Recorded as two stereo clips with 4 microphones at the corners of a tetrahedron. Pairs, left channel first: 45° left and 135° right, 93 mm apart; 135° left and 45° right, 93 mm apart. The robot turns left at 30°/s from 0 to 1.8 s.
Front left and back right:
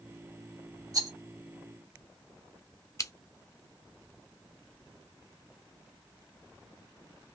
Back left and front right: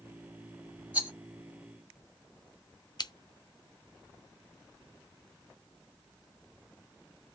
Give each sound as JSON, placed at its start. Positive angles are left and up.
{"t": 0.9, "sound": "a rattle", "azimuth_deg": -110, "distance_m": 1.2}
{"t": 3.0, "sound": "scissors", "azimuth_deg": 100, "distance_m": 0.5}